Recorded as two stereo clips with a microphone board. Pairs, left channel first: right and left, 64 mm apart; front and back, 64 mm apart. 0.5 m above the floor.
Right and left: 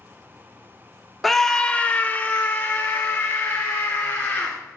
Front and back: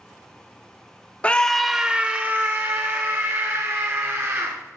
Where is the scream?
5° right, 0.7 m; by 4.5 s 145° right, 2.5 m.